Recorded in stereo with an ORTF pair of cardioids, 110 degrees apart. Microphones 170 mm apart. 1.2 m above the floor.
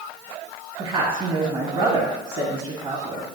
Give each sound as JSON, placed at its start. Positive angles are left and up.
{"t": 0.8, "sound": "a woman speaking", "azimuth_deg": -35, "distance_m": 1.6}